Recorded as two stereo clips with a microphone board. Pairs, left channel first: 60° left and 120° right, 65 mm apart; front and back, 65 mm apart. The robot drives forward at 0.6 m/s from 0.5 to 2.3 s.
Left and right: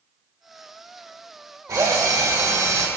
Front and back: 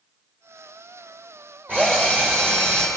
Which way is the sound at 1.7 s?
120° right.